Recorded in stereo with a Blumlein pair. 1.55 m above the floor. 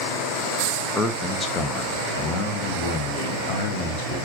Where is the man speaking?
5° left, 1.0 m; by 4.2 s 50° left, 3 m.